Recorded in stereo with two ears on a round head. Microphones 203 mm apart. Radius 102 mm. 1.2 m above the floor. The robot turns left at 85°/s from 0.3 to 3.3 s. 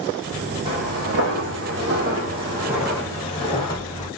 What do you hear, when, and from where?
0.7 s footsteps: 20° right (ahead or behind), 2.5 m; by 4.1 s 15° left (ahead or behind), 2 m